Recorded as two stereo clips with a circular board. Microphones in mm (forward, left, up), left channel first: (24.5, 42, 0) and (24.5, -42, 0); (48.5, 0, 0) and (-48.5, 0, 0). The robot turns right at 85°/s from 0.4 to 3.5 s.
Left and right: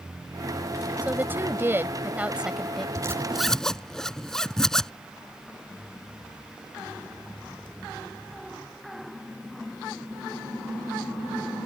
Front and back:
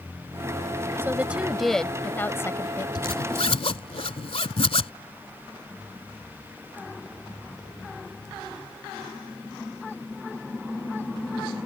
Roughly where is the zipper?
Ahead right.